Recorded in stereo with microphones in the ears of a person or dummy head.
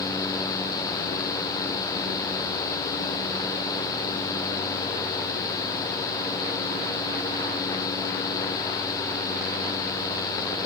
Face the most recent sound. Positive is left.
No sound to turn to.